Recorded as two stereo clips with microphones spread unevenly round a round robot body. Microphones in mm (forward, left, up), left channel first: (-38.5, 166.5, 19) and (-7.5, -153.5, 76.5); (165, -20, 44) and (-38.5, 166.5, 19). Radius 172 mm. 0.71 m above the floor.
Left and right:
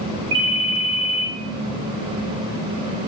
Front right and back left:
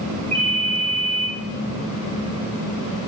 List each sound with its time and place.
0.3 s a ringtone: 110° right, 1.1 m